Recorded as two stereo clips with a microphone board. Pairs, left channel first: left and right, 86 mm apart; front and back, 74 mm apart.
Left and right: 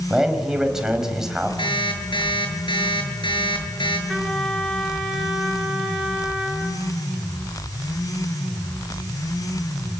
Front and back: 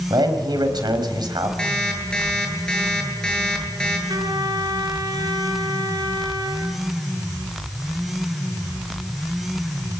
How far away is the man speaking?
About 4.5 m.